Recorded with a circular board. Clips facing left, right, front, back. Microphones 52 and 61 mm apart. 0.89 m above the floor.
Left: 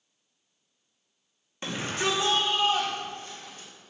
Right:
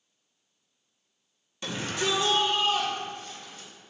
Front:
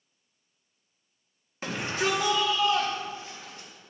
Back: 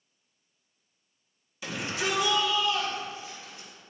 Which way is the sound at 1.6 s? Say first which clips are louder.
Left 1 dB, front 3 dB; 40° left.